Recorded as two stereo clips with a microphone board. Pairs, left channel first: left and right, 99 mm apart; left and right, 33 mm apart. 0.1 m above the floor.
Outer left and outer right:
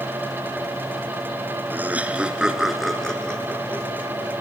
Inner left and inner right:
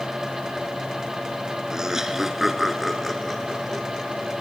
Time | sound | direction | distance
1.7 | laughter | 20° right (ahead or behind) | 1.2 m